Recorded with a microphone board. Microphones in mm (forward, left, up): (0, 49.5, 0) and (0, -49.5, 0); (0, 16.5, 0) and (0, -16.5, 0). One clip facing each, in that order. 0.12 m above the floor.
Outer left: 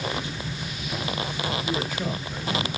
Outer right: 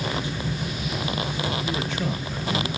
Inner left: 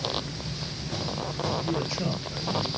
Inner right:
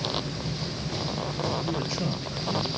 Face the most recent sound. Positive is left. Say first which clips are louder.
# outer right 1 dB, even
turn(degrees=5)  # may be behind; listen again after turning